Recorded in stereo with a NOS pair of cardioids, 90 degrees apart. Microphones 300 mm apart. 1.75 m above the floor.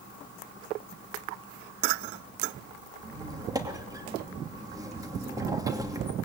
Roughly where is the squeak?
Ahead.